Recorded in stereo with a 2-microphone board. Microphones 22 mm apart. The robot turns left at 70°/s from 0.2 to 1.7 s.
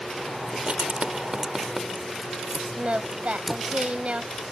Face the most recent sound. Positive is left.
turn(degrees=-65)  # may be behind; listen again after turning